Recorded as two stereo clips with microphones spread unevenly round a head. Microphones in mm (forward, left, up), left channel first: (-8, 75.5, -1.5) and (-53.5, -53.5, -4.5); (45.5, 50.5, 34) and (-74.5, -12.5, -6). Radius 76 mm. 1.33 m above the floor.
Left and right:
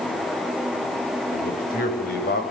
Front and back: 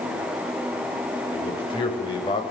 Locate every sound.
1.3 s a man speaking: 85° left, 8 m